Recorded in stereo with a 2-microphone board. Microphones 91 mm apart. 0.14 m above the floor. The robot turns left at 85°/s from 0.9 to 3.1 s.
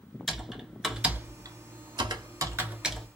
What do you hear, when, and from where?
0.3 s typing on a keyboard: 5° right (ahead or behind), 0.9 m; by 3.1 s 5° left (ahead or behind), 0.9 m